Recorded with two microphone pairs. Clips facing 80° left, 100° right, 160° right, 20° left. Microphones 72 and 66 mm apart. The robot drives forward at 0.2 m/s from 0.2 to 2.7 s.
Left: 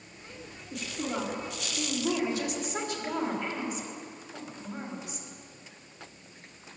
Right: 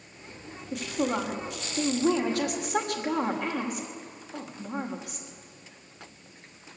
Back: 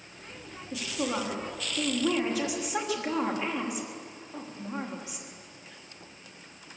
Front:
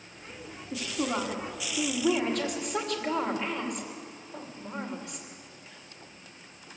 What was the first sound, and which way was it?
A woman speaking, 70° right.